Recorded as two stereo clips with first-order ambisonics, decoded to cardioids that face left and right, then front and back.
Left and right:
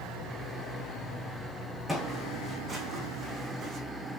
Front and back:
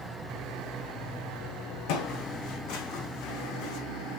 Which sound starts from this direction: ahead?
Footsteps, at 1.9 s.